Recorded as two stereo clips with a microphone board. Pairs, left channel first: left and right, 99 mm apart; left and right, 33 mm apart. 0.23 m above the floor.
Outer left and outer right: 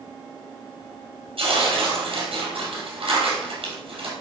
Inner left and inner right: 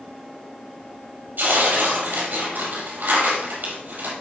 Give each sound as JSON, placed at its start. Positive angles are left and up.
{"t": 1.4, "sound": "tearing paper", "side_deg": -70, "distance_m": 4.5}